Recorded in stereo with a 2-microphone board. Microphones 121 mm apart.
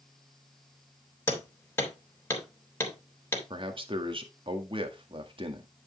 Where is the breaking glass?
I don't hear breaking glass.